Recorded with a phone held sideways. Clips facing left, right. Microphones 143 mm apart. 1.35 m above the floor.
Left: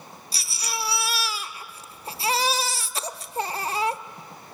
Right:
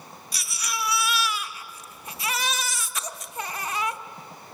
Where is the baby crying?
30° left (ahead or behind), 1.0 m.